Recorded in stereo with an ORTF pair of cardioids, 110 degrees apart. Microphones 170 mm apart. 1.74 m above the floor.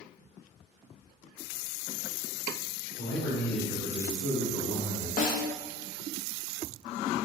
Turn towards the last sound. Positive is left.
turn(degrees=50)